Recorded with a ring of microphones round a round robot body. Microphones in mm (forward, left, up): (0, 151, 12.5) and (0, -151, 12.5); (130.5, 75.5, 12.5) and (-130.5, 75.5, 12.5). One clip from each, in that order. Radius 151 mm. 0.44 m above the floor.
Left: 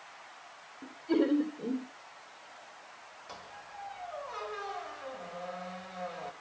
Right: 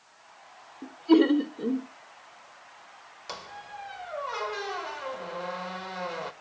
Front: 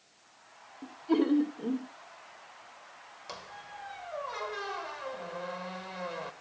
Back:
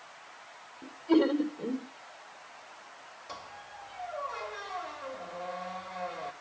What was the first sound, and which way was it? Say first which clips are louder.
Laughter: right 8 dB, back 3 dB; 95° right.